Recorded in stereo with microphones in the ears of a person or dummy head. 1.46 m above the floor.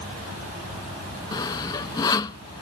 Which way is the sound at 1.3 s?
20° left (ahead or behind).